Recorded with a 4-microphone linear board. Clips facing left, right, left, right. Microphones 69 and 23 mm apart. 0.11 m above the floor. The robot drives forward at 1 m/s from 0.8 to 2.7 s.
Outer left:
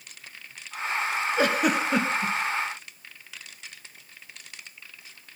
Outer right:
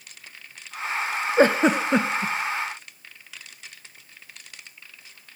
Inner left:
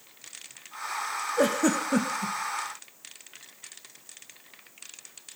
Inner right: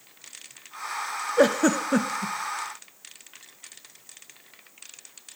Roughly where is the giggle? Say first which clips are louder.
Outer right 6 dB, inner right 4 dB; right.